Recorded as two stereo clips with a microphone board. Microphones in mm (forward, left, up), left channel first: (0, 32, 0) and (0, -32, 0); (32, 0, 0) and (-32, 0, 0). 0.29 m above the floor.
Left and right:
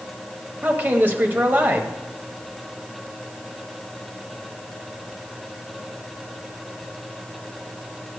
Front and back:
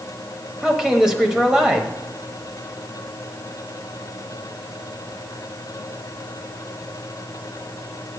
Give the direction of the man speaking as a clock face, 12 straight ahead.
4 o'clock.